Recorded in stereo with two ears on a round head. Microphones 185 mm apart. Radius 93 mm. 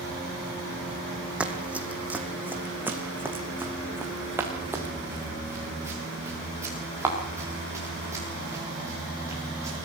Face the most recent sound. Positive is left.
turn(degrees=-15)  # may be behind; listen again after turning